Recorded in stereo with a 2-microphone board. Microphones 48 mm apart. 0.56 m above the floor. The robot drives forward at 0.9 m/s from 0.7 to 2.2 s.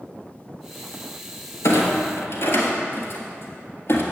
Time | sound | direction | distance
1.6 | a clunk | 75° left (ahead or behind) | 1.5 m